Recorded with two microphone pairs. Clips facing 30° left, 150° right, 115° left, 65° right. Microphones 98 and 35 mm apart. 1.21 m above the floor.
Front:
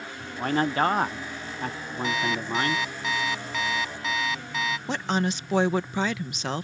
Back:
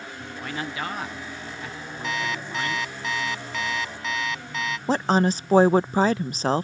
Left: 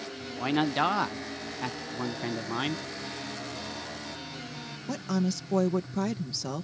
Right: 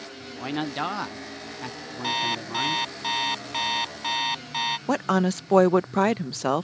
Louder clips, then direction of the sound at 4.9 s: Back 8 dB, right 5 dB; 100° right.